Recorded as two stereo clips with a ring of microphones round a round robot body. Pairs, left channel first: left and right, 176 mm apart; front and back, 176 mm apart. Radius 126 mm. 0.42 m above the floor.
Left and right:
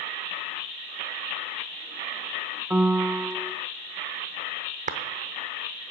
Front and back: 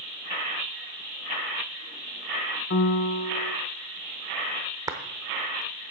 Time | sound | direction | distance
2.7 | a piano | 10° right | 0.6 m
4.9 | a clap | 115° right | 0.8 m